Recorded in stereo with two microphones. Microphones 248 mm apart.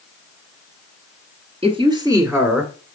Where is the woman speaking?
25° right (ahead or behind), 1.4 m; by 2.7 s centre (ahead or behind), 1.4 m.